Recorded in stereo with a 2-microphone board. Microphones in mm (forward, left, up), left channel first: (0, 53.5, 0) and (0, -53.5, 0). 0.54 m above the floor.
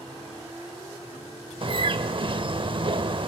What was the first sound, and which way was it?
A bird, 50° right (ahead or behind).